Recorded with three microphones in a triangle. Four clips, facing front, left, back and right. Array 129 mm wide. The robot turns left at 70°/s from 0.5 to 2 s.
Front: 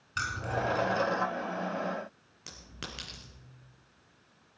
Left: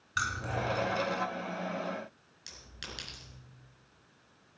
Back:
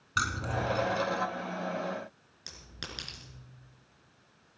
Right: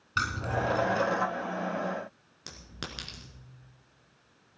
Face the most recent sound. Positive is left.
turn(degrees=-80)